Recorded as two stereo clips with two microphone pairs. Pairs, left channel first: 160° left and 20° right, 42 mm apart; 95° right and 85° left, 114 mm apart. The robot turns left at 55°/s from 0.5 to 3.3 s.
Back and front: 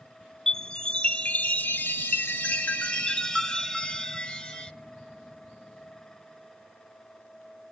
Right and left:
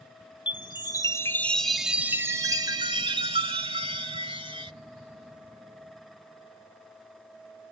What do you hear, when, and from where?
0.5 s a chime: 115° right, 0.8 m; by 4.7 s 90° left, 0.8 m